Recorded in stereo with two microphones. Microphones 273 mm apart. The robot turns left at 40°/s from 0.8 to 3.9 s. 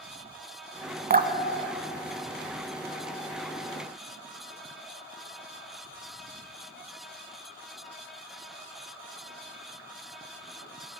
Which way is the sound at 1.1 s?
35° right (ahead or behind).